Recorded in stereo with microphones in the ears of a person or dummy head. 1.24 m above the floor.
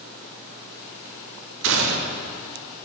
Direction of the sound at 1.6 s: 65° right (ahead or behind).